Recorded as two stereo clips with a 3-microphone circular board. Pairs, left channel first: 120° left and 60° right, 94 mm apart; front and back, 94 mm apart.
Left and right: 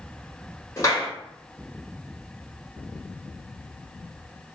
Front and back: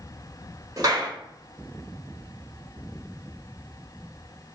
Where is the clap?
155° left, 1.5 m.